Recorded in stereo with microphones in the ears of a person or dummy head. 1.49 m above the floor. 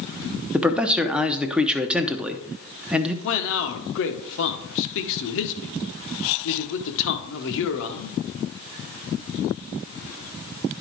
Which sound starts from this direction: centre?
A man speaking, at 0.5 s.